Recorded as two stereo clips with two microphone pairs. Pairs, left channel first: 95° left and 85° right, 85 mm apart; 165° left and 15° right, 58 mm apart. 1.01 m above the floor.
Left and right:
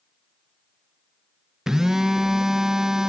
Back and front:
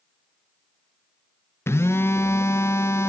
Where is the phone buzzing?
165° right, 0.7 m.